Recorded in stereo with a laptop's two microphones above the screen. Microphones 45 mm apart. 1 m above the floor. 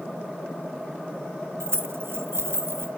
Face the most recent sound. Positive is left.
turn(degrees=-65)  # may be behind; listen again after turning